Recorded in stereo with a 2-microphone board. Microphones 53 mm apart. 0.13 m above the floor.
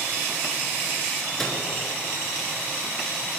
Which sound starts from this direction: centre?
A microwave, at 1.4 s.